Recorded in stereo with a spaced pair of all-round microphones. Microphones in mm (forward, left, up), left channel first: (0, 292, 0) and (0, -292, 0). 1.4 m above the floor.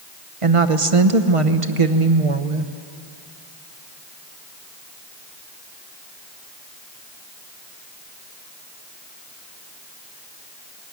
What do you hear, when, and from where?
0.4 s a woman speaking: 60° right (ahead or behind), 1.1 m